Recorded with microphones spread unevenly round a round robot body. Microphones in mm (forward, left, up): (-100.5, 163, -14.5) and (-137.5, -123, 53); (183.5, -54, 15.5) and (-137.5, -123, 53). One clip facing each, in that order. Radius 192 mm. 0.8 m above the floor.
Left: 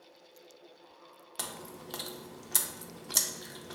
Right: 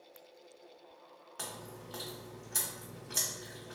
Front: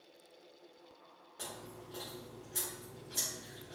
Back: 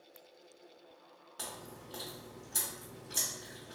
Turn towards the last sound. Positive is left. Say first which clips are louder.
# left 2 dB, even
turn(degrees=125)